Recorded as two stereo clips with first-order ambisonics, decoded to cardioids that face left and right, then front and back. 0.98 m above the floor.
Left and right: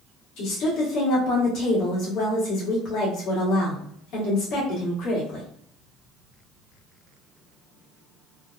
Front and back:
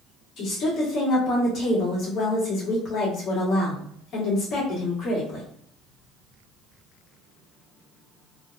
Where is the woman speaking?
55° left, 1.5 m.